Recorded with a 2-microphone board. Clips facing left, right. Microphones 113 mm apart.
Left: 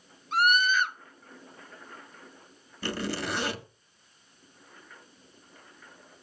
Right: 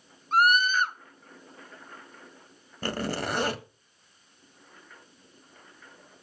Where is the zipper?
45° right (ahead or behind), 1.7 m.